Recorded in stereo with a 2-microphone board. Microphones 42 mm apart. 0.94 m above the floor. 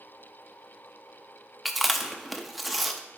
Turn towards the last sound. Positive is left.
turn(degrees=0)  # may be behind; listen again after turning